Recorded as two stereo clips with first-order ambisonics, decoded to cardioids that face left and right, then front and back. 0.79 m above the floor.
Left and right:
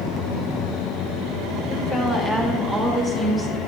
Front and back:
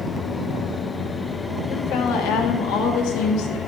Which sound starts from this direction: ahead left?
A woman speaking, at 1.7 s.